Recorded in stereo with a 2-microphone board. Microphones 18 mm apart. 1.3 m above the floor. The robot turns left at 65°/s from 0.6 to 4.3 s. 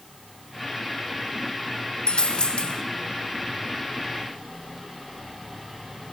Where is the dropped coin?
115° left, 2.5 m; by 2.8 s 65° left, 2.5 m.